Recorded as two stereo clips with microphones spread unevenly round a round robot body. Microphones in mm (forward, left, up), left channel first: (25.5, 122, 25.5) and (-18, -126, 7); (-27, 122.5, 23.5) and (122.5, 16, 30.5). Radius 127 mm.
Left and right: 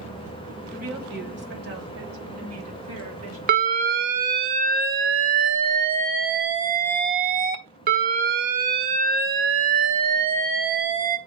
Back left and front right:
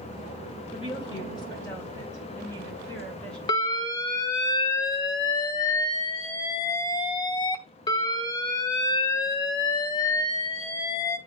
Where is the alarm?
150° right, 0.8 m.